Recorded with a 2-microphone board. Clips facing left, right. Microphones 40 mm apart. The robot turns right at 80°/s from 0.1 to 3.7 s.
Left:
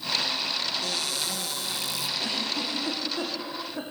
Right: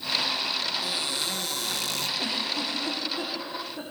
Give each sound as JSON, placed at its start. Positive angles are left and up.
{"t": 0.8, "sound": "a cupboard door", "azimuth_deg": -160, "distance_m": 2.0}
{"t": 2.2, "sound": "a giggle", "side_deg": -25, "distance_m": 8.5}